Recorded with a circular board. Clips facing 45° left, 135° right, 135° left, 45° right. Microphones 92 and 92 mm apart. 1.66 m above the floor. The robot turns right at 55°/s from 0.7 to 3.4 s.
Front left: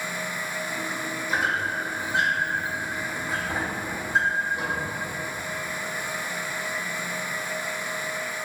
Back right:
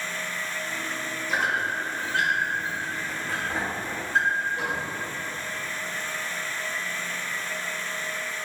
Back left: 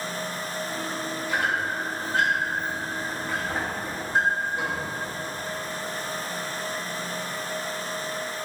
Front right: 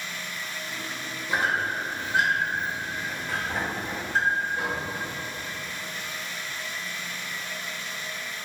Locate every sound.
1.3 s a squeak: 30° right, 0.6 m; by 4.9 s 90° left, 0.6 m